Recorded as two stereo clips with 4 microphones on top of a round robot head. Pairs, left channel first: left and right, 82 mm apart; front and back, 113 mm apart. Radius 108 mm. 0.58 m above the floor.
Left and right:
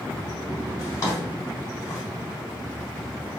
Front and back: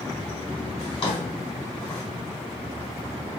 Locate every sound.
0.8 s a drawer: 40° left, 2.5 m